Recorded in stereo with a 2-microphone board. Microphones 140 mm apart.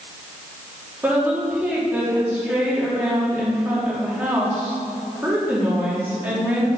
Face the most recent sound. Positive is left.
turn(degrees=-10)  # may be behind; listen again after turning